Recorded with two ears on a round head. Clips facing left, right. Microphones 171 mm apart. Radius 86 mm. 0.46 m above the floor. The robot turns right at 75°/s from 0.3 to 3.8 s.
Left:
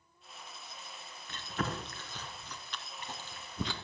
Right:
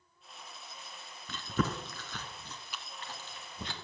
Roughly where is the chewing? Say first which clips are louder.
Right 4 dB; right.